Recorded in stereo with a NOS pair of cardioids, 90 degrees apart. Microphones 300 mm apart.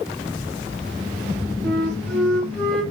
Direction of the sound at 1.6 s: 5° left.